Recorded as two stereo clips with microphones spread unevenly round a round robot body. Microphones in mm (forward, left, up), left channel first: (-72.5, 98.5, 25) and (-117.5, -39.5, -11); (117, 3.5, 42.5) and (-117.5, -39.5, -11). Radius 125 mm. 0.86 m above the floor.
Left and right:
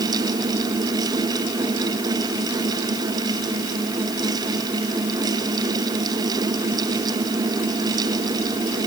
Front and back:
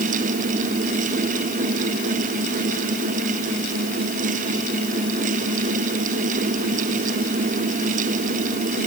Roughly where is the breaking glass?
I don't hear breaking glass.